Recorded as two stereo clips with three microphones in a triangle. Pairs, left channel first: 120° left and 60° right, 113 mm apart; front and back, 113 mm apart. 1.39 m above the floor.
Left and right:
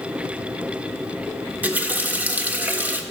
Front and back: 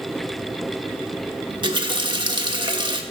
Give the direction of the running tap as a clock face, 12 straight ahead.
4 o'clock.